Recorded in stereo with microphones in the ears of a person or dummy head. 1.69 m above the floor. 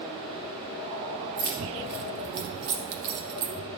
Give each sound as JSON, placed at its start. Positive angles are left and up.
{"t": 1.4, "sound": "keys jangling", "side_deg": -40, "distance_m": 1.0}